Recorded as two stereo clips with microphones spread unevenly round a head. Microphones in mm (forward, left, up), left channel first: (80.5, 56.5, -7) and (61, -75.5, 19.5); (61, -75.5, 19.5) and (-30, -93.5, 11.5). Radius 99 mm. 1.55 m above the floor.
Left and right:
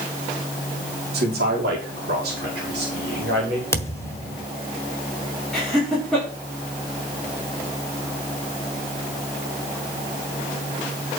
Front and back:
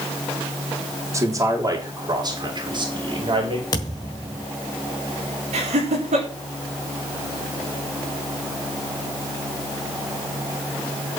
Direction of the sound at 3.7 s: 10° left.